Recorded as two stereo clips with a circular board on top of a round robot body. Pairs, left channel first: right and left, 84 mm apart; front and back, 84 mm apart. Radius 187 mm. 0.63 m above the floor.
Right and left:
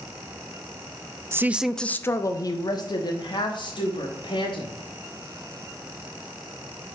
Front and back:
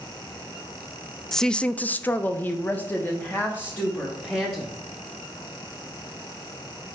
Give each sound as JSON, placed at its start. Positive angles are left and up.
{"t": 1.3, "sound": "a woman speaking", "azimuth_deg": 80, "distance_m": 0.6}